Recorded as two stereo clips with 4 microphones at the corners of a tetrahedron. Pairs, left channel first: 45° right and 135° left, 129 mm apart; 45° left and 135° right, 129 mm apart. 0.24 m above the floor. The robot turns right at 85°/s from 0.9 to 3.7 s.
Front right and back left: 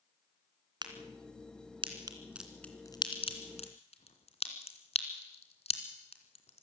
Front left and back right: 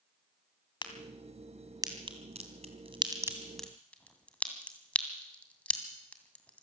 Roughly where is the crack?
Left.